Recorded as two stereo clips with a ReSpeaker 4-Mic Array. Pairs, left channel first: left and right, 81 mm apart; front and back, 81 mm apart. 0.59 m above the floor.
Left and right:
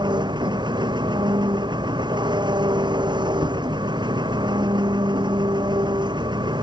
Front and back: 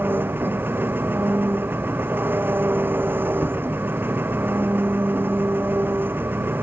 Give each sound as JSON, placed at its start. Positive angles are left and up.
{"t": 0.0, "sound": "an engine running", "azimuth_deg": -115}